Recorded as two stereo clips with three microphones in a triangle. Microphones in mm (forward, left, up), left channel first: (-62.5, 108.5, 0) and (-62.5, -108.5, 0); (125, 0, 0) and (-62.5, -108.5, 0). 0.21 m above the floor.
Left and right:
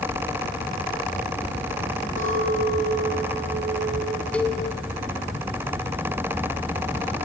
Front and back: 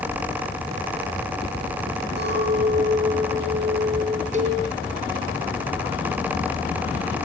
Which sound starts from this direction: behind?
A cowbell, at 4.3 s.